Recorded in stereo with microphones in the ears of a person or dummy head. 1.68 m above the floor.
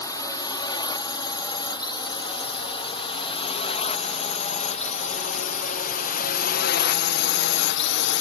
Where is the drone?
30° left (ahead or behind); by 8.2 s 65° left (ahead or behind).